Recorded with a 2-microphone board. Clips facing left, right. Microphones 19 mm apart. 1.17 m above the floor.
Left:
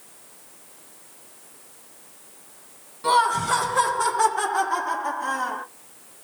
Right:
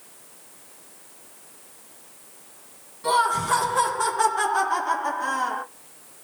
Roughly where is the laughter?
Centre.